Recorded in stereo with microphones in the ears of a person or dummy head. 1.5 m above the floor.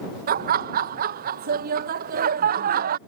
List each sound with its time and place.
0.3 s laughter: 45° right (ahead or behind)